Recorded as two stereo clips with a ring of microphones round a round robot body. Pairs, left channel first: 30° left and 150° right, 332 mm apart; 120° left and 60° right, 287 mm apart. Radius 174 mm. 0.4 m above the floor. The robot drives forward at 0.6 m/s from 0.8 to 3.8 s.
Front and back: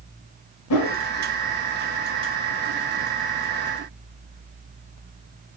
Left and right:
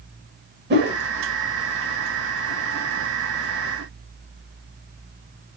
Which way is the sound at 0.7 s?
5° right.